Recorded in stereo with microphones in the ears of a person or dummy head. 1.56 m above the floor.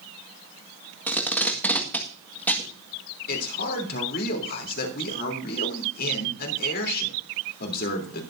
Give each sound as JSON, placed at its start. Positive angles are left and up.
{"t": 1.1, "sound": "tape being pulled", "side_deg": 5, "distance_m": 1.7}
{"t": 3.3, "sound": "a man speaking", "side_deg": 60, "distance_m": 3.5}